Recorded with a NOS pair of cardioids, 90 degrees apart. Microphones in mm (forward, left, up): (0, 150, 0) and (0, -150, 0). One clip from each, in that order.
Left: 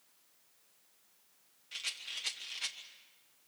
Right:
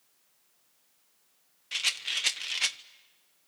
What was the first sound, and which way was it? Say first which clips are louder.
A rattle: right 11 dB; 65° right.